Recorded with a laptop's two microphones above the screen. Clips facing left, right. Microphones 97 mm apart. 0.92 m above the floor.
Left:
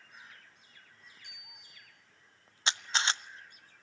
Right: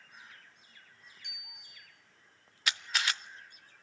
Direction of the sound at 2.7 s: 30° left (ahead or behind).